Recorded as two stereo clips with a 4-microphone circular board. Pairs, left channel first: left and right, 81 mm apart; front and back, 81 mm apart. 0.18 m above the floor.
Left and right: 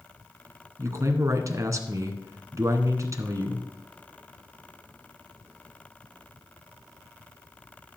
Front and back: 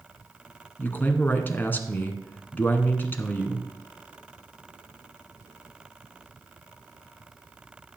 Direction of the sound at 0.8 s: 60° right.